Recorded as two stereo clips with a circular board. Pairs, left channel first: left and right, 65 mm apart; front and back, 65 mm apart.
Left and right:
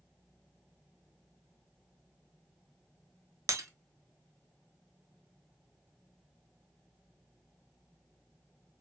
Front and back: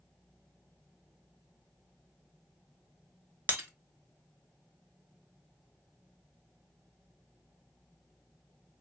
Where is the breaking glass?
125° right, 0.5 m.